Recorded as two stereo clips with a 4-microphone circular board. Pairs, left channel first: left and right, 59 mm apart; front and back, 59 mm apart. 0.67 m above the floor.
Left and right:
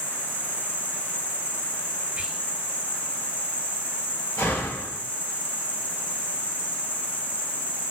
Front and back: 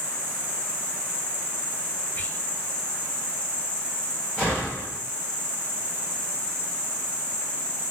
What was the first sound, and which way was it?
An insect, 50° left.